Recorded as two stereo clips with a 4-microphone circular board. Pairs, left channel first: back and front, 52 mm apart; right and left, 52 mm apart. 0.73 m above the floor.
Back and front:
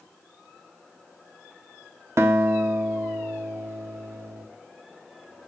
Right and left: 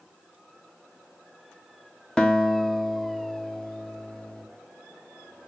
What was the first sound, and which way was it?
A guitar, 20° right.